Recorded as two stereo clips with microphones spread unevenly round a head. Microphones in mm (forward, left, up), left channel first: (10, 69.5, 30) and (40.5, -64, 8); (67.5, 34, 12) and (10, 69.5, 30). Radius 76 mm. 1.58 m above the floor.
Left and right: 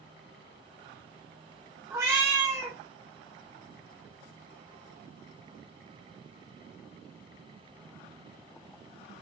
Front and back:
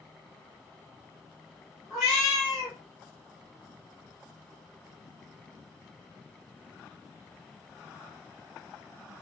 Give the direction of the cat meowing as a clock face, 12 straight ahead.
5 o'clock.